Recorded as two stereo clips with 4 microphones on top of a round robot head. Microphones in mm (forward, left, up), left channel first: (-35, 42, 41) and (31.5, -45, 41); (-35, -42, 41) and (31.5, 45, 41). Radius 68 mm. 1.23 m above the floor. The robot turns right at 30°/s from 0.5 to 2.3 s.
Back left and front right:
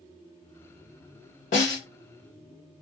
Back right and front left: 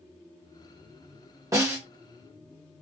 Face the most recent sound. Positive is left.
turn(degrees=140)